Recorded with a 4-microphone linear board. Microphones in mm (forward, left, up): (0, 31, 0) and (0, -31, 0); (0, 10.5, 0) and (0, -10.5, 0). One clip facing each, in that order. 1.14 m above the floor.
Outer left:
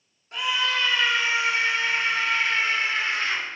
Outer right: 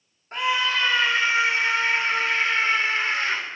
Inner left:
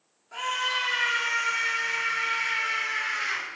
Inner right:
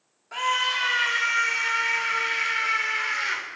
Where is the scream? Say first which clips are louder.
Outer right 2 dB, inner right 4 dB; 40° right (ahead or behind), 3 m; by 3.4 s 35° right (ahead or behind), 5 m.